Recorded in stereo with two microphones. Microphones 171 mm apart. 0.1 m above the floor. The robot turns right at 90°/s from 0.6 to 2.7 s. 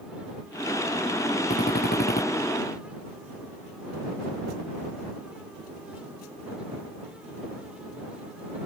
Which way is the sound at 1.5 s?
55° left.